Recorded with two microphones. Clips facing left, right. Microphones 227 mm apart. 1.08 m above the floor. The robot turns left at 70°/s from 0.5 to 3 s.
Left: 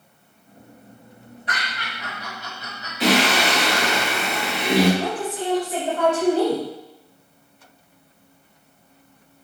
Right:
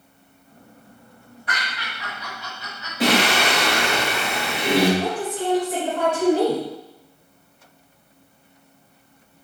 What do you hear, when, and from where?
1.5 s laughter: 25° left (ahead or behind), 1.1 m; by 4.0 s 30° left (ahead or behind), 1.1 m
3.0 s singing: 50° right (ahead or behind), 1.7 m
5.0 s a woman speaking: 60° right (ahead or behind), 1.6 m